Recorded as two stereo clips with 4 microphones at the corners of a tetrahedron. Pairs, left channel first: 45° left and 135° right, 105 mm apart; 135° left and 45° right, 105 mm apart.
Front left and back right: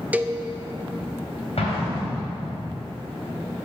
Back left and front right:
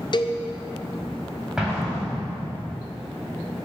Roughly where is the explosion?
Ahead left.